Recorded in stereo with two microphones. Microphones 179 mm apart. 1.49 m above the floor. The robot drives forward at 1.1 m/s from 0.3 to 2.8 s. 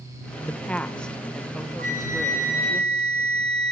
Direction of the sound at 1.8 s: 50° right (ahead or behind).